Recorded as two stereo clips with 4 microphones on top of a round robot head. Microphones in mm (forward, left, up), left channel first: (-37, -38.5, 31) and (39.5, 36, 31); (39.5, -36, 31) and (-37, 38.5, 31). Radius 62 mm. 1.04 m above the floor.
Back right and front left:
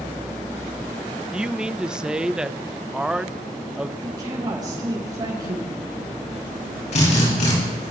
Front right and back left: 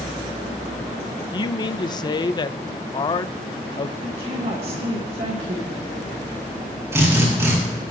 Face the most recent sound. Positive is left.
turn(degrees=-155)